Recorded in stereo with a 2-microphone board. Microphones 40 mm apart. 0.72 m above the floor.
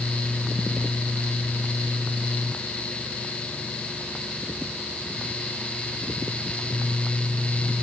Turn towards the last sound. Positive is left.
No sound to turn to.